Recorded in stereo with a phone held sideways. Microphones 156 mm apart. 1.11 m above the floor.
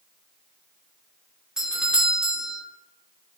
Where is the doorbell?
5° right (ahead or behind), 0.5 m.